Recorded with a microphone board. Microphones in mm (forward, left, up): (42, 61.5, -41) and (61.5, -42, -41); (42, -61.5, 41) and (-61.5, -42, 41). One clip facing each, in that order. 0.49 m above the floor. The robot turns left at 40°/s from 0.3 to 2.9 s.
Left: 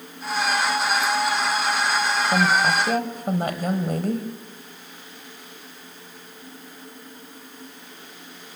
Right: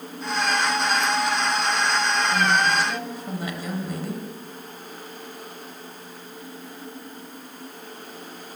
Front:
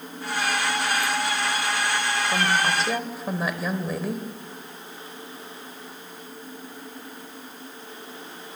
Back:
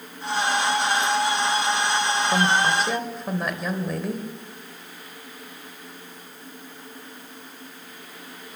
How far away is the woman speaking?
About 2 m.